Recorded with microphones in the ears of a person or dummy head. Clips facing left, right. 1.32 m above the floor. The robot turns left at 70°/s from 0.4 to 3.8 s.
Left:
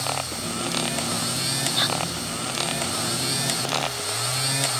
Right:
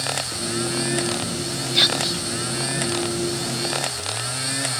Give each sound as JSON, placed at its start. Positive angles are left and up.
{"t": 1.8, "sound": "whispering", "azimuth_deg": -35}